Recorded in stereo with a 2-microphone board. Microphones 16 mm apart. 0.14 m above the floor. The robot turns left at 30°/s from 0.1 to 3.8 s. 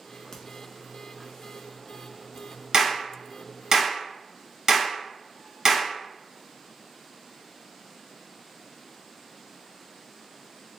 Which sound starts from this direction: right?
A clap, at 2.7 s.